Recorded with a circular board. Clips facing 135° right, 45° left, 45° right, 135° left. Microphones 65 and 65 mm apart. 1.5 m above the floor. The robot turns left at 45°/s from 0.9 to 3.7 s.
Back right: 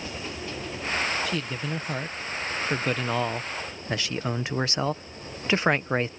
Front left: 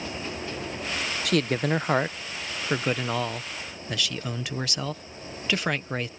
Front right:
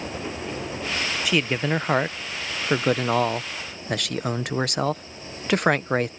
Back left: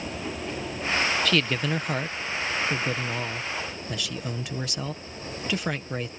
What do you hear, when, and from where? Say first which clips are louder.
0.0 s an engine running: front left 1 dB, front right 1 dB; 45° right; by 6.2 s 175° right
1.2 s a man speaking: front left 6 dB, front right 2 dB; 35° left; by 6.1 s 75° right